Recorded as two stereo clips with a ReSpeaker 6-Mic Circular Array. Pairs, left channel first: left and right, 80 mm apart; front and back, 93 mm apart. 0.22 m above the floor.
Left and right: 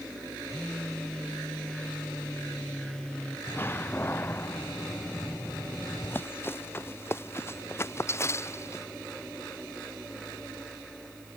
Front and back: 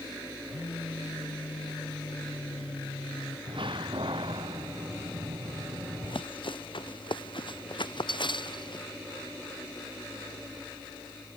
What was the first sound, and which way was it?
A phone buzzing, 10° left.